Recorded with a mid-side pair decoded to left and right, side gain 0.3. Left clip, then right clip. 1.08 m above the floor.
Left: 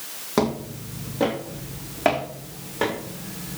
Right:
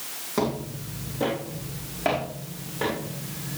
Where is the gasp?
I don't hear a gasp.